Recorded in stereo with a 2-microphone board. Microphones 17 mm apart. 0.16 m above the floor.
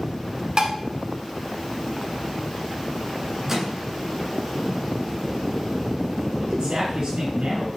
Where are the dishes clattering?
45° right (ahead or behind), 0.9 m.